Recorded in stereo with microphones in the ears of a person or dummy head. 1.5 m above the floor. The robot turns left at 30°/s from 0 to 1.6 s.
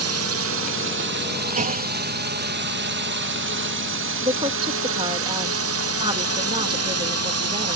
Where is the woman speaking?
20° right (ahead or behind).